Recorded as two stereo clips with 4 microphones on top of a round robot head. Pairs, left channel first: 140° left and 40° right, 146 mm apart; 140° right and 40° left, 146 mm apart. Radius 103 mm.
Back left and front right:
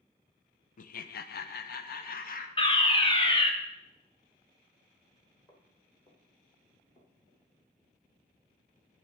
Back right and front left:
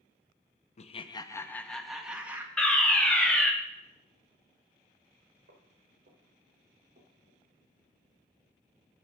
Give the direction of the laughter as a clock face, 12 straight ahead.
6 o'clock.